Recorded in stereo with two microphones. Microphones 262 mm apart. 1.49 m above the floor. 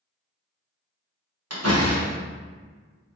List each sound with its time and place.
1.5 s a door slam: 70° right (ahead or behind), 1.2 m